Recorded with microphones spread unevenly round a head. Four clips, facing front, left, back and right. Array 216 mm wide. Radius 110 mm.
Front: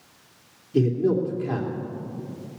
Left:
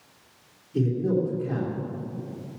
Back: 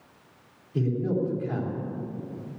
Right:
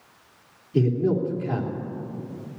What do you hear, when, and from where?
0.7 s a man speaking: 25° right, 3 m